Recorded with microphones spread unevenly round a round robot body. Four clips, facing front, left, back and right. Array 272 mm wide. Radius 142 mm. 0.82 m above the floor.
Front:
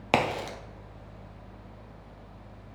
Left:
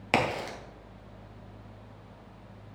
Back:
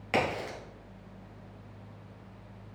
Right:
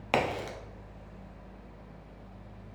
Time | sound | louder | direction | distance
0.1 | a crack | left 1 dB, front 3 dB | 20° left | 0.7 m